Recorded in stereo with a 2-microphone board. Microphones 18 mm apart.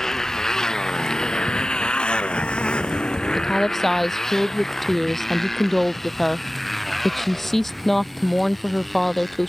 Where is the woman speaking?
10° left (ahead or behind).